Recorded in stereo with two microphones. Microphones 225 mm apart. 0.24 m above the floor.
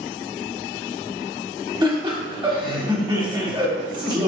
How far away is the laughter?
About 1.0 m.